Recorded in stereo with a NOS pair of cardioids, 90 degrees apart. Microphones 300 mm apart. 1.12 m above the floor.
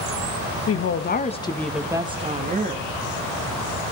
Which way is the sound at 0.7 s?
55° left.